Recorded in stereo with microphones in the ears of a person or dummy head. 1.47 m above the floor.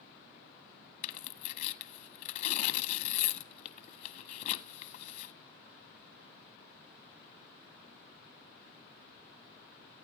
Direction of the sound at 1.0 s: 55° left (ahead or behind).